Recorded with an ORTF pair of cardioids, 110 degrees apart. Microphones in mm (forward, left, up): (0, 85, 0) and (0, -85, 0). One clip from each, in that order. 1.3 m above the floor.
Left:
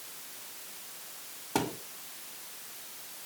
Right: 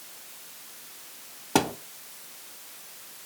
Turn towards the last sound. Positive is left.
turn(degrees=-45)